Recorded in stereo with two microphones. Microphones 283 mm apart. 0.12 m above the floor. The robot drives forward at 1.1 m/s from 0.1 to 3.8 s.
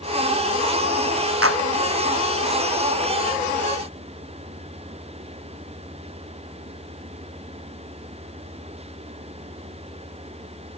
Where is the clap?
50° right (ahead or behind).